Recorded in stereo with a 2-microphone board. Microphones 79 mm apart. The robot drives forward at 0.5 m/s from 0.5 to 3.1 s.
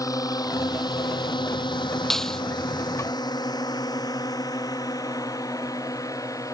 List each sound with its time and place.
0.0 s a drone: 45° left (ahead or behind)
2.1 s a clap: 5° left (ahead or behind)